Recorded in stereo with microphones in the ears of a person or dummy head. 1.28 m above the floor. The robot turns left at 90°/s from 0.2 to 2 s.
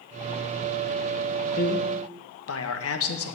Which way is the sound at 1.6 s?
140° left.